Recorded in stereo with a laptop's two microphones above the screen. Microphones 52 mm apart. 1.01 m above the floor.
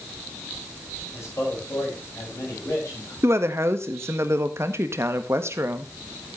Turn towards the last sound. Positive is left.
turn(degrees=-55)  # may be behind; listen again after turning